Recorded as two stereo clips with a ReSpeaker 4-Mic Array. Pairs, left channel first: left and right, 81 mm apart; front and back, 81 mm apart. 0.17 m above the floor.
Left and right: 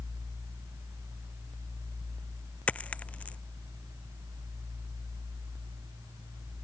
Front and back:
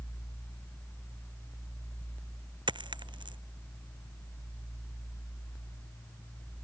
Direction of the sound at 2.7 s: 165° left.